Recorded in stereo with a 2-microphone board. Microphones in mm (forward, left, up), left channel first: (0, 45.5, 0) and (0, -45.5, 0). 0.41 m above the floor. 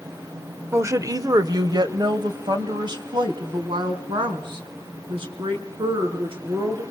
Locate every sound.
0.7 s a woman speaking: 30° right (ahead or behind), 1.1 m; by 6.8 s 70° right (ahead or behind), 6 m